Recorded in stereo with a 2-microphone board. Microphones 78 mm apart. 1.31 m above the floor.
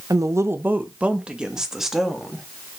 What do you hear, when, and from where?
0.1 s a woman speaking: 50° right (ahead or behind), 0.7 m; by 2.5 s centre (ahead or behind), 2 m